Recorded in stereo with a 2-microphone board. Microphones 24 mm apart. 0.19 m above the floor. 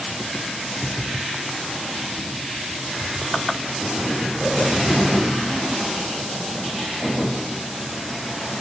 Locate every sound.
Only background noise.